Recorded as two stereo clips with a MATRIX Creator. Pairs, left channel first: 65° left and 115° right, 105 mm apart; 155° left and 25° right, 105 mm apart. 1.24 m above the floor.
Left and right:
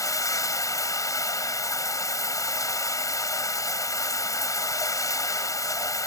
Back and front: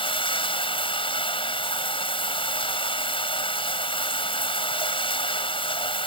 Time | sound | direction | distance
0.0 | running water | 125° left | ?